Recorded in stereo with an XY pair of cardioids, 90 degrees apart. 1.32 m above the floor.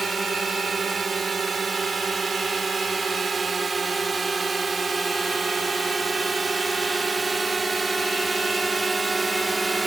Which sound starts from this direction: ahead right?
A drone, at 0.0 s.